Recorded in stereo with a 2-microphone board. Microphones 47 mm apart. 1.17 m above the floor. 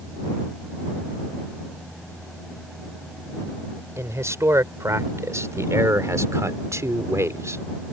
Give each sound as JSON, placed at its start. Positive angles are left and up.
{"t": 4.0, "sound": "a man speaking", "side_deg": -75}